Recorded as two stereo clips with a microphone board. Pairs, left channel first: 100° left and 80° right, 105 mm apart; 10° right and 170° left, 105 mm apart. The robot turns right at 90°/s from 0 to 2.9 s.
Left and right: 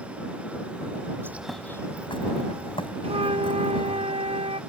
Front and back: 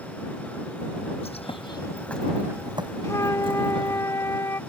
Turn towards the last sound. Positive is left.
turn(degrees=-75)